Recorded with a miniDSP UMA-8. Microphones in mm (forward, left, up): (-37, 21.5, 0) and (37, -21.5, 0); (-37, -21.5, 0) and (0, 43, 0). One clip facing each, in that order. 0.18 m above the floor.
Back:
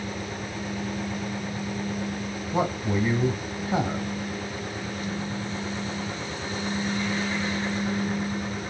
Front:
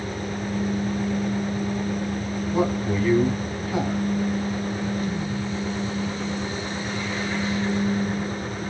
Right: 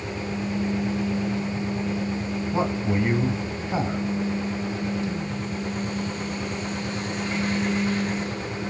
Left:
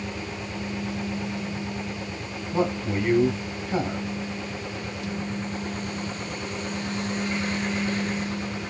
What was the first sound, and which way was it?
A man speaking, 175° right.